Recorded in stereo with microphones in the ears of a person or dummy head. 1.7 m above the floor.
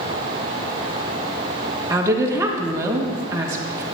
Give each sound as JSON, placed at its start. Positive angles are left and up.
{"t": 1.9, "sound": "a woman speaking", "side_deg": -20, "distance_m": 1.5}